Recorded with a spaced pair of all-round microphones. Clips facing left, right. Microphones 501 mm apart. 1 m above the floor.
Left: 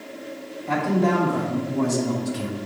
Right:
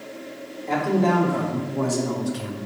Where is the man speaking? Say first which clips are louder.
Even; 30° left (ahead or behind), 3 m; by 2.6 s 50° left (ahead or behind), 1.2 m.